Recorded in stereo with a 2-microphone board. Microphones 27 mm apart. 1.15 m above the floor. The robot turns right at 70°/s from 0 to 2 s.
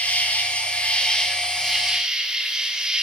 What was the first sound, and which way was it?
An insect, 70° left.